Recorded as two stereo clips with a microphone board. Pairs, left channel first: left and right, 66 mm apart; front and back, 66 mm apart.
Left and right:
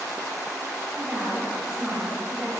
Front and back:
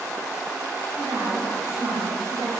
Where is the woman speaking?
175° right, 3 m.